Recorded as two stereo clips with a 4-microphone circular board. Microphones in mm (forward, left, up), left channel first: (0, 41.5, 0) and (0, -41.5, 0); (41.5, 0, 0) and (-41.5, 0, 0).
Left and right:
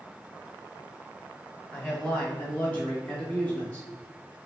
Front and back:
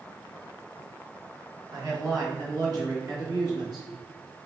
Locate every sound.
1.7 s a man speaking: 170° left, 1.5 m; by 3.9 s 160° left, 2.5 m